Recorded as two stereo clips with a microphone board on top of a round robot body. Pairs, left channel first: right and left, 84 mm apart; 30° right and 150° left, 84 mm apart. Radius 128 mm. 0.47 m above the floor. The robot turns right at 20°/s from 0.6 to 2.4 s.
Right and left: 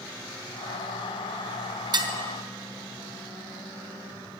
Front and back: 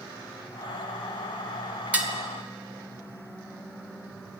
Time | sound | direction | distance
1.9 | dishes clattering | 80° left | 1.0 m